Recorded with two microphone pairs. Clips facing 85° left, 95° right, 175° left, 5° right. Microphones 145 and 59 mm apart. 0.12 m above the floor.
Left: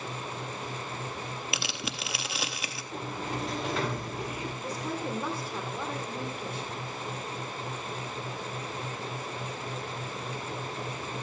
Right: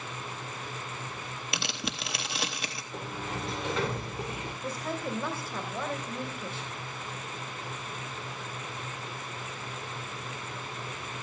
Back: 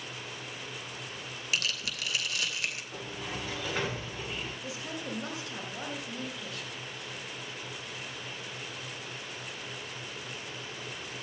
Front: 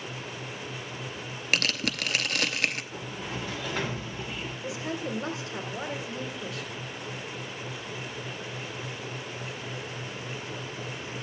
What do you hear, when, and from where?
1.5 s tearing paper: straight ahead, 0.6 m
2.9 s a sliding door: 85° left, 6.5 m
4.6 s a woman speaking: 30° left, 1.6 m